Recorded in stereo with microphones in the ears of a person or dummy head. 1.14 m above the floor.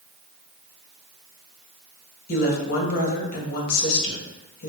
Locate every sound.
2.3 s a woman speaking: 50° left (ahead or behind), 2.0 m